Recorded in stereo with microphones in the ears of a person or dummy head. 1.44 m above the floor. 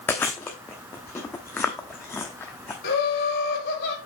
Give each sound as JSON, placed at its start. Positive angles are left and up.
{"t": 0.1, "sound": "chewing", "side_deg": 10, "distance_m": 0.9}
{"t": 2.8, "sound": "laughter", "side_deg": 50, "distance_m": 2.5}